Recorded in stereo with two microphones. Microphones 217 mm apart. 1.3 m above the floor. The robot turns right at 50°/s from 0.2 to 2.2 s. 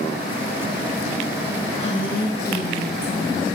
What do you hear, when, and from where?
1.8 s a woman speaking: 25° left (ahead or behind), 1.3 m; by 3.5 s 45° left (ahead or behind), 1.3 m